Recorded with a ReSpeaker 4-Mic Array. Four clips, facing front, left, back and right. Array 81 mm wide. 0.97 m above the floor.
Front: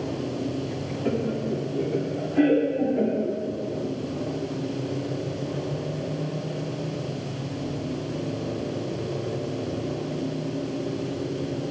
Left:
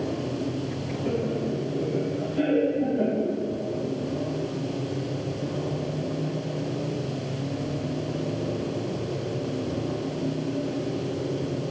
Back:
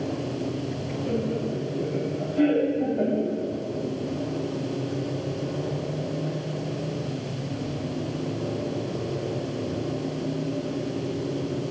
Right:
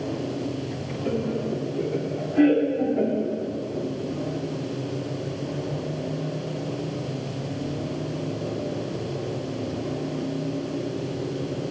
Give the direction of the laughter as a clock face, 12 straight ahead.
12 o'clock.